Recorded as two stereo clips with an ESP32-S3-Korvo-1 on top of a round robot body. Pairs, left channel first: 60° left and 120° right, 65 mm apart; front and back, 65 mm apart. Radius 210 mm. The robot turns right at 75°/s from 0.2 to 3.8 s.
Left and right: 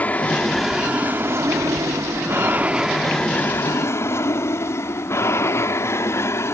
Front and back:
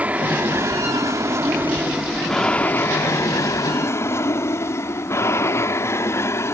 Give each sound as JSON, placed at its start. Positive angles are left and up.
{"t": 0.0, "sound": "an aircraft", "azimuth_deg": 120}